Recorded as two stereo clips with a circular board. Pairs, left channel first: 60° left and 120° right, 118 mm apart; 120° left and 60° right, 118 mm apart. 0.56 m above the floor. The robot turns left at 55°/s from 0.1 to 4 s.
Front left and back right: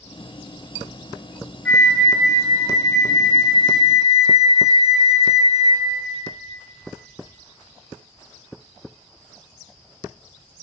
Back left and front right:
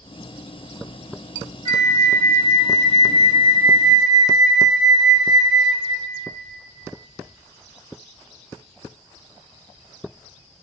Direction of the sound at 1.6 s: 20° right.